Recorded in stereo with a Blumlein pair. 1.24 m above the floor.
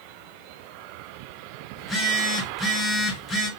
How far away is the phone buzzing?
About 1.1 m.